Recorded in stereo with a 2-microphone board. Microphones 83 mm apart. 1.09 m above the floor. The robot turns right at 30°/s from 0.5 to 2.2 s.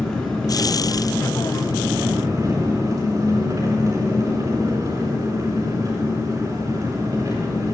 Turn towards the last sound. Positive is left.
turn(degrees=-140)